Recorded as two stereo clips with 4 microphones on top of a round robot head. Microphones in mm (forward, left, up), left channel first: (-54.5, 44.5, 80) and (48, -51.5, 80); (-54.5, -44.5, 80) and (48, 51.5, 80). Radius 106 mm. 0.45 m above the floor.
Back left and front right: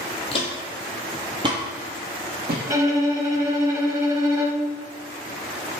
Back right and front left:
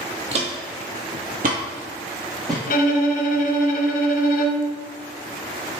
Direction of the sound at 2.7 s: 110° right.